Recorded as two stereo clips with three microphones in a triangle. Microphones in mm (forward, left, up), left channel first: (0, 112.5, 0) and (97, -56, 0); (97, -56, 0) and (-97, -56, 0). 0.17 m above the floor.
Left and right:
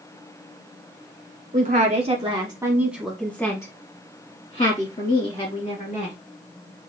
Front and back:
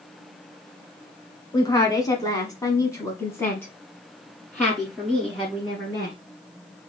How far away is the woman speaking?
About 1.3 m.